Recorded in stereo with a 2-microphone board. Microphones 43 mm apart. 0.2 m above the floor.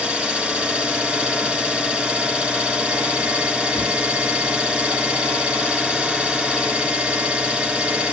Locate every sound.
0.0 s an engine running: 25° right (ahead or behind), 1.5 m